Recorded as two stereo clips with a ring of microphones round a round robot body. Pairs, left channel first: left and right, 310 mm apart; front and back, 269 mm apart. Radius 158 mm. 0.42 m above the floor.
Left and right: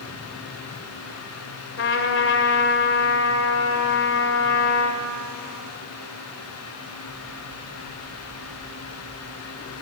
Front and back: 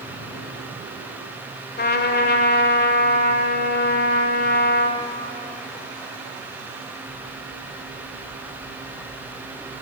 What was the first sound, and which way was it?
A trumpet, 45° left.